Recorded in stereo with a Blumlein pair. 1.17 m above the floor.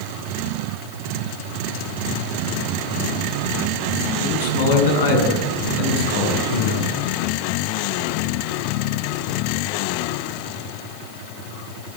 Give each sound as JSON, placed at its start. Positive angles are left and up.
{"t": 4.2, "sound": "a man speaking", "azimuth_deg": 60, "distance_m": 9.0}